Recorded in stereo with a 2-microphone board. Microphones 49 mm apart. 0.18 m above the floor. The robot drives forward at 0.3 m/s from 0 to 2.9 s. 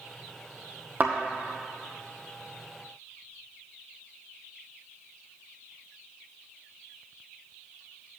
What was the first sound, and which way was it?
A thud, 40° right (ahead or behind).